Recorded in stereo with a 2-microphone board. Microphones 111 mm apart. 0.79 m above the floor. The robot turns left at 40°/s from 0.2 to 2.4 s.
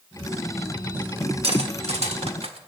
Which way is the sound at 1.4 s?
65° right (ahead or behind).